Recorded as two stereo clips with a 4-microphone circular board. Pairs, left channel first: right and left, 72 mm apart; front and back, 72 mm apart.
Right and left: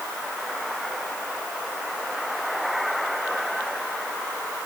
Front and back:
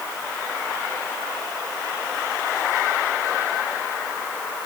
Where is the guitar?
I don't hear a guitar.